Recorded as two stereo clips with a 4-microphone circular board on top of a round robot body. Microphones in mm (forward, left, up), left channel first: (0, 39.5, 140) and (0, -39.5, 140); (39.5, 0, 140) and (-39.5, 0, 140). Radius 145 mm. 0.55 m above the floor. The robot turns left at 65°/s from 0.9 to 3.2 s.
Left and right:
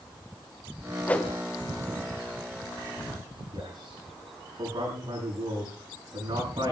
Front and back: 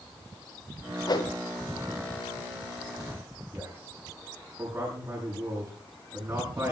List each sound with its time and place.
1.1 s a whoosh: 25° left, 1.9 m; by 1.3 s 5° left, 1.9 m
3.5 s a man speaking: 125° right, 8.5 m